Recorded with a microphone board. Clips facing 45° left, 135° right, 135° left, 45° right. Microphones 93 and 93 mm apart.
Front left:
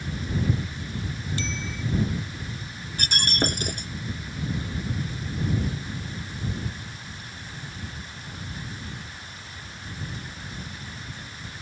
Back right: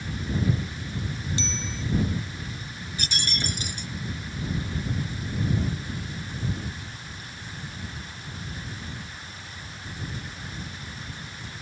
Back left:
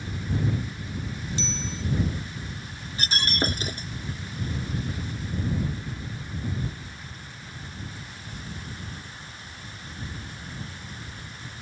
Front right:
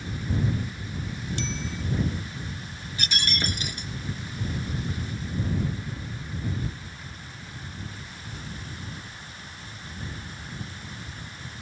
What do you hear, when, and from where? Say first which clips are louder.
1.4 s a bicycle bell: even, back left 1 dB; 70° right
3.0 s breaking glass: front left 7 dB, back left 3 dB; 80° left